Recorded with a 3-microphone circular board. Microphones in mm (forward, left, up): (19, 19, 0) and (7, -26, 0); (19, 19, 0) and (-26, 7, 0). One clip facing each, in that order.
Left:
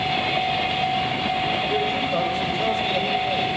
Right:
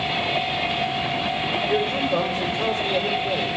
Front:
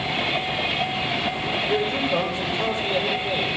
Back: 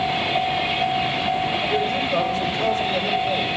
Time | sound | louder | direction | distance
1.7 | a man speaking | right 1 dB, back 1 dB | 50° right | 9.5 m